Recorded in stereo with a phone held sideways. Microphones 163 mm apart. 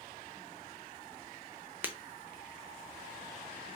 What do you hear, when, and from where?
1.8 s breaking glass: 10° right (ahead or behind), 0.7 m